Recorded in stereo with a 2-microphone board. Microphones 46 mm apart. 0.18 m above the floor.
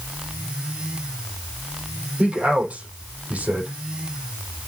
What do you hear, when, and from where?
2.2 s a man speaking: 25° right (ahead or behind), 6 m